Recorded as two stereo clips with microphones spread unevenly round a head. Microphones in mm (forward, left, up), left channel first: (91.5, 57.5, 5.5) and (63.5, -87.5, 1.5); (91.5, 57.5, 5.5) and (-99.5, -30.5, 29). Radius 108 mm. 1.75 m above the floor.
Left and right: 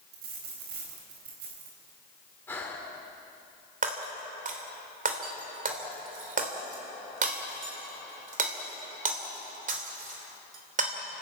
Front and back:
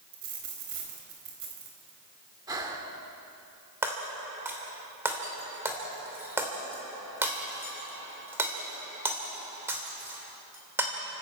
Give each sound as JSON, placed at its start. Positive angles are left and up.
{"t": 0.1, "sound": "a dropped coin", "azimuth_deg": -120, "distance_m": 4.0}
{"t": 2.5, "sound": "breathing", "azimuth_deg": 150, "distance_m": 1.7}
{"t": 3.8, "sound": "breaking glass", "azimuth_deg": -80, "distance_m": 3.0}